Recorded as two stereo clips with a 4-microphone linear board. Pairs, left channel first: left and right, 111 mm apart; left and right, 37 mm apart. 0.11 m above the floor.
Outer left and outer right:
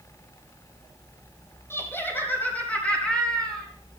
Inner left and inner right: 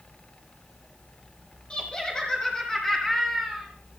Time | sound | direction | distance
1.7 | laughter | 20° left (ahead or behind) | 4 m